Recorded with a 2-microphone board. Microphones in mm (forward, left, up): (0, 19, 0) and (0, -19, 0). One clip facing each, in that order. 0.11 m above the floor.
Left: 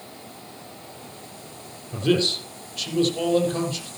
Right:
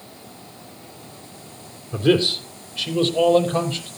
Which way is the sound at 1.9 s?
15° right (ahead or behind).